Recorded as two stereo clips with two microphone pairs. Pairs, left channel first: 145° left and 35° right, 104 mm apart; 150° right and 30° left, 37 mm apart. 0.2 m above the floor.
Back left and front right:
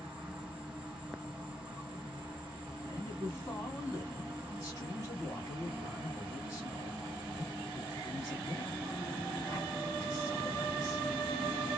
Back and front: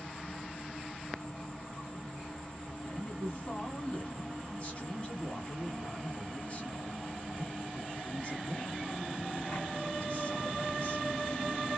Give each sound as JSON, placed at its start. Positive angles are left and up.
{"t": 0.0, "sound": "an insect", "azimuth_deg": -105, "distance_m": 1.4}
{"t": 2.9, "sound": "a man speaking", "azimuth_deg": 175, "distance_m": 1.5}